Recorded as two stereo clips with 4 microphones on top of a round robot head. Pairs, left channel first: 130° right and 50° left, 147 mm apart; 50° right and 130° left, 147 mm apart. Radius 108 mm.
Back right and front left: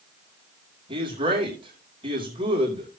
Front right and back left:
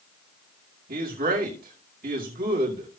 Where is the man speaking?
105° left, 4.5 m.